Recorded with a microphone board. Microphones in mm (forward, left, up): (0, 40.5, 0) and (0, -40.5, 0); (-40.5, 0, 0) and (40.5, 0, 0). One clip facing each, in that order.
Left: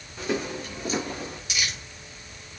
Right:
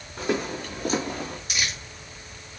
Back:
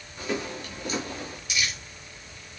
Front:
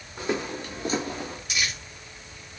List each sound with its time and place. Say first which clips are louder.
0.2 s footsteps: right 2 dB, front 2 dB; 55° right, 5.5 m; by 1.4 s 60° right, 4.5 m
1.5 s crumpling: even, even; 45° right, 6 m